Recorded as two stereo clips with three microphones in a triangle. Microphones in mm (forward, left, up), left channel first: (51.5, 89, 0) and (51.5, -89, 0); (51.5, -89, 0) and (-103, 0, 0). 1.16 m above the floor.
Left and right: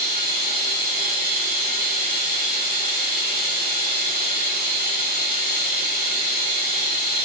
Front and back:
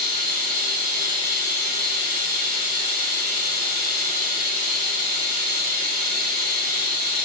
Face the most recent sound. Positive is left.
turn(degrees=110)